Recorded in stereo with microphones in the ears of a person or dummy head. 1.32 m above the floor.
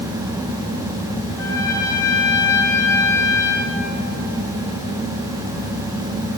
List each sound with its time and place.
1.4 s a trumpet: 15° left (ahead or behind), 0.9 m